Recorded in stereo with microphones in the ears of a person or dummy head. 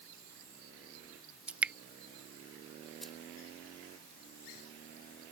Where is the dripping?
5° right (ahead or behind).